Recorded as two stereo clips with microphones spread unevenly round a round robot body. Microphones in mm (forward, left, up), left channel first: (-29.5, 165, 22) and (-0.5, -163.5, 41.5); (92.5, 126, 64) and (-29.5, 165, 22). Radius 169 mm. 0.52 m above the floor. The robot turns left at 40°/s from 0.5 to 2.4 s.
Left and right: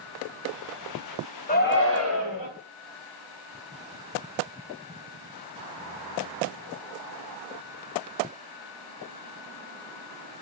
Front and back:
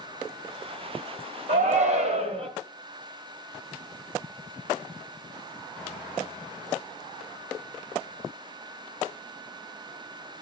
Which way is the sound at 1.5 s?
160° left.